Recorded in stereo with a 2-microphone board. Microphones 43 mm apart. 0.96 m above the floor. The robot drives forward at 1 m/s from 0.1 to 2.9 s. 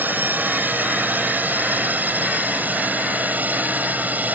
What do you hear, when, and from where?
0.0 s a drone: 50° right (ahead or behind); by 4.4 s 45° right (ahead or behind)